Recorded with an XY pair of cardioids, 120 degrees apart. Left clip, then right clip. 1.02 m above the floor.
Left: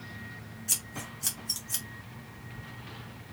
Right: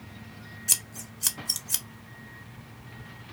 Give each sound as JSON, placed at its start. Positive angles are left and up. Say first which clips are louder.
{"t": 0.7, "sound": "scissors", "louder": "right 4 dB", "azimuth_deg": -40, "distance_m": 0.7}